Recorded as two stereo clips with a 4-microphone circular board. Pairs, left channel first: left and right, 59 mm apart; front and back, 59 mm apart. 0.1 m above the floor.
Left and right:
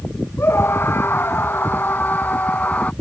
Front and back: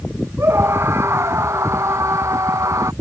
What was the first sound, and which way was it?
A scream, 135° left.